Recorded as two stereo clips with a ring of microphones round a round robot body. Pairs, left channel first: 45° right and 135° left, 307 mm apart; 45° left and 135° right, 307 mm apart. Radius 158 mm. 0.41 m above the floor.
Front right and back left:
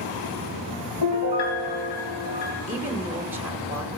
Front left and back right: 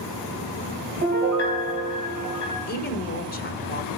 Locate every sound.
1.0 s a piano: 70° right, 4 m
2.7 s a woman speaking: 60° left, 1.3 m